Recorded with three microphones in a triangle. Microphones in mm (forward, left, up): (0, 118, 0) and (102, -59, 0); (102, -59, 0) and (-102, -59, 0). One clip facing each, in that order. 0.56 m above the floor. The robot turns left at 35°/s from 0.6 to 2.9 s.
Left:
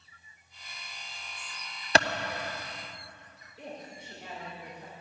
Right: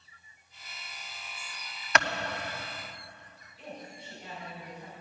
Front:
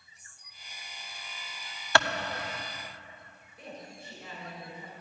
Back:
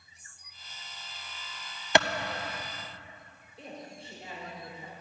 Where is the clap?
130° left, 0.6 m; by 2.1 s 125° left, 0.6 m.